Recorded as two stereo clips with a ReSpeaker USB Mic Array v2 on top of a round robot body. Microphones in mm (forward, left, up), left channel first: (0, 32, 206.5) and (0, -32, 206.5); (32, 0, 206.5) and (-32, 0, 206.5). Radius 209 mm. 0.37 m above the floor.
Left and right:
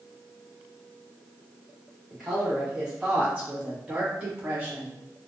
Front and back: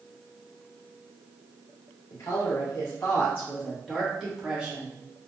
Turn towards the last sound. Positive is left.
turn(degrees=-135)